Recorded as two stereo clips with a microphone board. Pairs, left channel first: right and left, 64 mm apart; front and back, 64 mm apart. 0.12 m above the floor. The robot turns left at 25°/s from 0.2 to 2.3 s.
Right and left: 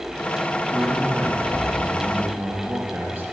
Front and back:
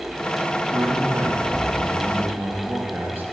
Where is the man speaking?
175° left, 3.5 m; by 3.2 s 135° left, 3.5 m.